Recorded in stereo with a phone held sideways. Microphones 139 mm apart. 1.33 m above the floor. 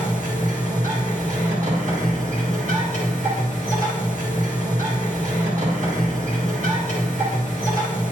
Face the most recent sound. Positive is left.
turn(degrees=-65)  # may be behind; listen again after turning